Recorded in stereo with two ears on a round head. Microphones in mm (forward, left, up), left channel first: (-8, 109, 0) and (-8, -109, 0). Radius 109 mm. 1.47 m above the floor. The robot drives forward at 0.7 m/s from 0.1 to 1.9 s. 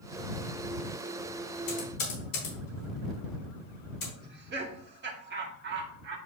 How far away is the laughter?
About 2 m.